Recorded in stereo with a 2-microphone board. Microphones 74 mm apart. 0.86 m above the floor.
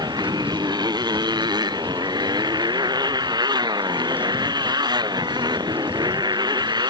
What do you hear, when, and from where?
0.0 s a motorcycle: 65° right (ahead or behind)